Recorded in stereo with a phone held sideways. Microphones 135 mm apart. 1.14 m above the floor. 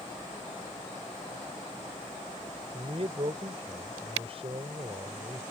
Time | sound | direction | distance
2.7 | a man speaking | 45° right (ahead or behind) | ?